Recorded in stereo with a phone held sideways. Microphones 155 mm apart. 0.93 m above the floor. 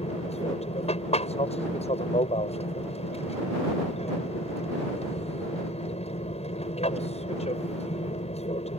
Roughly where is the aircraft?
Left.